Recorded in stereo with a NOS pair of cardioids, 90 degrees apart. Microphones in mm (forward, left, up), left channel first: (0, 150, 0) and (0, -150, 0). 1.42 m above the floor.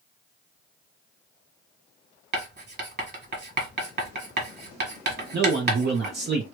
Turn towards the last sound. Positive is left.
turn(degrees=-35)